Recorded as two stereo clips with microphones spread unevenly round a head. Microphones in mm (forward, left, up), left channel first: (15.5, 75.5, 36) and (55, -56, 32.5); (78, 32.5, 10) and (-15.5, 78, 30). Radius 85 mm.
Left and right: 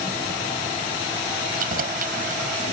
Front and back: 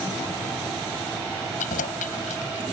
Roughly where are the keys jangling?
Ahead right.